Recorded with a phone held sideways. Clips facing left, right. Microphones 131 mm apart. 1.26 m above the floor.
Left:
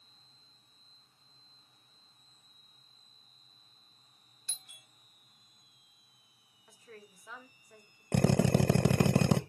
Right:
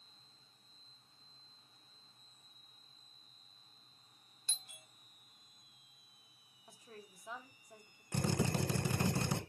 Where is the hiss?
I don't hear a hiss.